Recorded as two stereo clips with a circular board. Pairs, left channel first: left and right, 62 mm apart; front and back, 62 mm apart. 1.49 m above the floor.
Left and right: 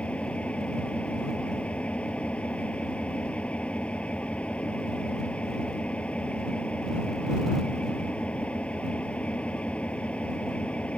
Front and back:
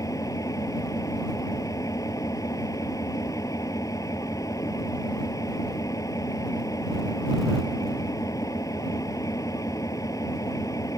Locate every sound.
0.0 s an engine running: 15° left